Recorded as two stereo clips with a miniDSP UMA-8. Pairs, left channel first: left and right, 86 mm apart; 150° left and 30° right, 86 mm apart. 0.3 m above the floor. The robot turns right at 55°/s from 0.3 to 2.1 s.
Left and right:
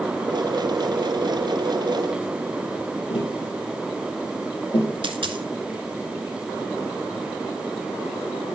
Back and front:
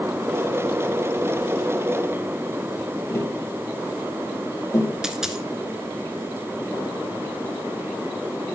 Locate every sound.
3.1 s tapping: 95° left, 4 m
5.0 s a dropped coin: 110° right, 0.9 m